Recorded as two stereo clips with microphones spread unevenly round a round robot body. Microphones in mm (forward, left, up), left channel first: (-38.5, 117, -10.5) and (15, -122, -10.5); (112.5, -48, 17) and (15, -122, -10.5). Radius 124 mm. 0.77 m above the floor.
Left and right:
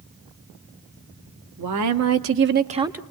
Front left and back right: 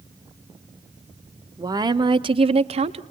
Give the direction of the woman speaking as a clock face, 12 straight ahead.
3 o'clock.